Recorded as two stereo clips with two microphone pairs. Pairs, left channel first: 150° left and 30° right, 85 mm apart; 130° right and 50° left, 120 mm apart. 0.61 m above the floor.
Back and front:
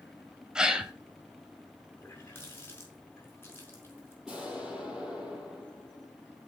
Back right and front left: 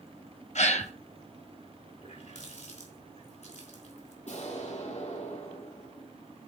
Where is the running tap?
145° right, 4.5 m.